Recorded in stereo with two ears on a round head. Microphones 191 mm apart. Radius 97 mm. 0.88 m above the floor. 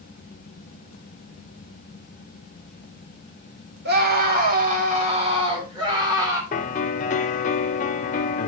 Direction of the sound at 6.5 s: 35° left (ahead or behind).